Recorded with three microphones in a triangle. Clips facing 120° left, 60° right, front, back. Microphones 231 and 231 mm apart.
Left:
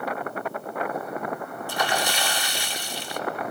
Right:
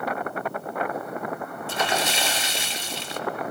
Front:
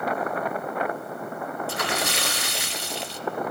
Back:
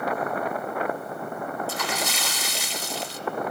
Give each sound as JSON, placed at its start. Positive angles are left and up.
{"t": 1.7, "sound": "a splash", "azimuth_deg": 5, "distance_m": 0.9}